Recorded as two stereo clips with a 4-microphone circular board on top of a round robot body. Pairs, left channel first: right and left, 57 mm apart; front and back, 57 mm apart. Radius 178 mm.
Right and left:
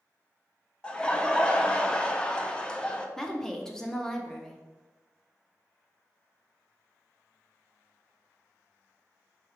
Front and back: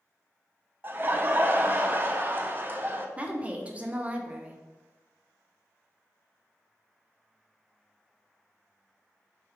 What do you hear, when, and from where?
0.8 s laughter: 155° right, 0.7 m
3.2 s a woman speaking: 160° right, 0.8 m